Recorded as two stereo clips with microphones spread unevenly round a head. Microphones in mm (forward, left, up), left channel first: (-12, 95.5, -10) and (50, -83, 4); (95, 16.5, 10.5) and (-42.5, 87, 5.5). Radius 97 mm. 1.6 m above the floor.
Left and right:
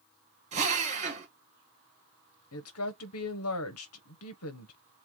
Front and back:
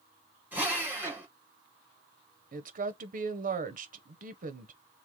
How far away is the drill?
About 2 m.